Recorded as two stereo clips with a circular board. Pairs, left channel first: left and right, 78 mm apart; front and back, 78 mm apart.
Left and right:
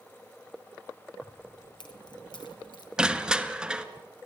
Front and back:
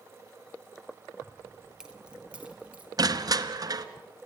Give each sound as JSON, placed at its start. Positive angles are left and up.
{"t": 1.2, "sound": "keys jangling", "azimuth_deg": 85, "distance_m": 2.0}
{"t": 3.0, "sound": "crushing", "azimuth_deg": -165, "distance_m": 1.2}